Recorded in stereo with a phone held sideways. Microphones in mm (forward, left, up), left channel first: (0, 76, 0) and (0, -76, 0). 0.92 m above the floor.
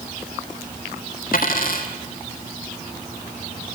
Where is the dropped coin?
70° left (ahead or behind), 2.5 m.